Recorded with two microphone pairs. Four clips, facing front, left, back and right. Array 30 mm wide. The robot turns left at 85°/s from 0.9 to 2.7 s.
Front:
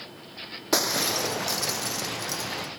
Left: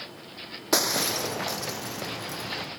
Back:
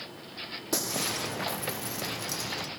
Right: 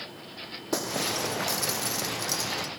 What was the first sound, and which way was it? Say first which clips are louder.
Breaking glass: left 4 dB, front 7 dB; 40° left.